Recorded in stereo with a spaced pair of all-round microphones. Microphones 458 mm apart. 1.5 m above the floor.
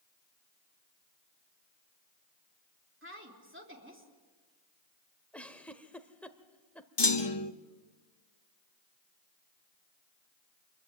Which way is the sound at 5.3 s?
5° left (ahead or behind).